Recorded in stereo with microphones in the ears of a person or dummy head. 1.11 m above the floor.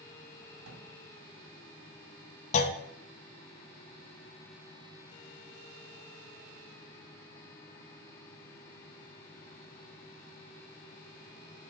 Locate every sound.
0.6 s a drawer: 80° right, 3.5 m
2.5 s a clunk: 40° left (ahead or behind), 0.6 m